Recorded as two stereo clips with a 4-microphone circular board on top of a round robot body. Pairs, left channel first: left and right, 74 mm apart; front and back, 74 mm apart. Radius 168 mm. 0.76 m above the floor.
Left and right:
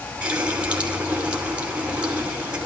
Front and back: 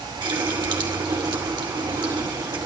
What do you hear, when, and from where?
0.2 s a running tap: 165° right, 3 m